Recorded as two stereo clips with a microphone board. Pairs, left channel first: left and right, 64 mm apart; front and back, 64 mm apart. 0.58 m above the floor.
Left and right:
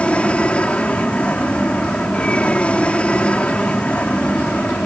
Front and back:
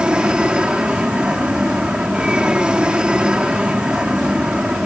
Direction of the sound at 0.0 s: 125° left.